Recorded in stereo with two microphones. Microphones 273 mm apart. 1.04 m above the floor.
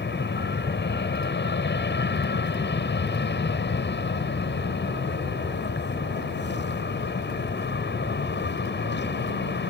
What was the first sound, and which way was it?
An aircraft, 40° left (ahead or behind).